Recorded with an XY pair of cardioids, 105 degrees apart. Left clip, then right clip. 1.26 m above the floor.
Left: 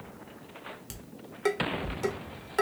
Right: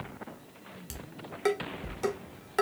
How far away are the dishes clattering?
About 1.4 m.